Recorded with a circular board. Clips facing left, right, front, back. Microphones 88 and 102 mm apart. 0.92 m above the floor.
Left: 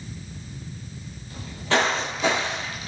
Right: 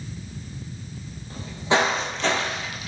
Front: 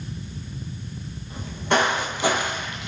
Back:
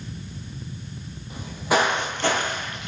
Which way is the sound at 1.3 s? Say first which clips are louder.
Right 1 dB, even; 110° right.